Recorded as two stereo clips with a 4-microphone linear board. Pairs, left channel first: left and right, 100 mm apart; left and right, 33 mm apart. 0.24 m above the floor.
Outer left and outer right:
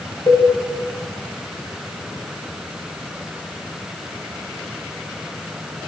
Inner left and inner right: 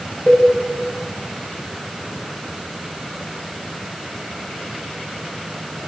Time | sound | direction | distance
0.3 | a cowbell | 40° left (ahead or behind) | 4 m